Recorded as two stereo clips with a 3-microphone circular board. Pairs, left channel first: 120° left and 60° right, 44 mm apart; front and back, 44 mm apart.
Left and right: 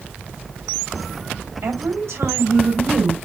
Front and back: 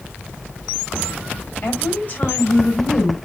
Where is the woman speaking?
50° right, 5 m.